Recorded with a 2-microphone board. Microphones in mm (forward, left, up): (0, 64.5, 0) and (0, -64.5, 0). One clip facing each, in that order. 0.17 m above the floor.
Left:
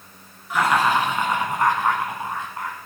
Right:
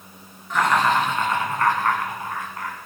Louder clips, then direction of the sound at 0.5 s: Even; 5° left (ahead or behind).